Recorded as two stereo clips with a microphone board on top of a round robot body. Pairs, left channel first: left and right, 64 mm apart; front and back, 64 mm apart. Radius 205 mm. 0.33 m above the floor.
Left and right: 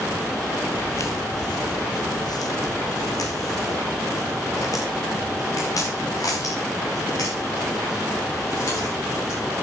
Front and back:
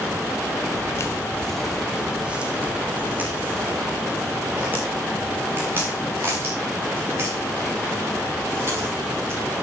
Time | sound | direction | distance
0.7 | footsteps | 25° left | 0.7 m